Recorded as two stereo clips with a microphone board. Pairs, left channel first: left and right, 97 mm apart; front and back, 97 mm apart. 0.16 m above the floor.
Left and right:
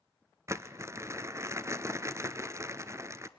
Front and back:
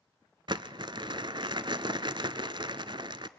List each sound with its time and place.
0.5 s crumpling: 145° right, 0.6 m